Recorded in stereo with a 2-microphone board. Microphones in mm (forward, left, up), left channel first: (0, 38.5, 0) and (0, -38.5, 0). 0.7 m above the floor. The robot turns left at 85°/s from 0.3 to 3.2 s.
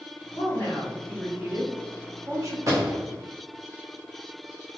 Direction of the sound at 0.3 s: 75° left.